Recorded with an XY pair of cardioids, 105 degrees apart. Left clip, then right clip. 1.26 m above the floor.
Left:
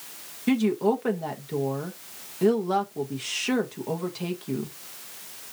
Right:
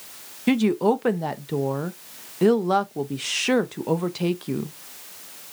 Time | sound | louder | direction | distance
0.5 | a woman speaking | right 3 dB | 35° right | 0.8 m